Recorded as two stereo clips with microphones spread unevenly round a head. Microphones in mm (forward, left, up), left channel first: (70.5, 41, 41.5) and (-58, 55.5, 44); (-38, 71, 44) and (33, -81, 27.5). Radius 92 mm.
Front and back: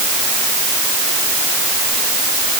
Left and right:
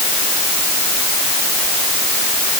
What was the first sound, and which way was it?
Only background noise.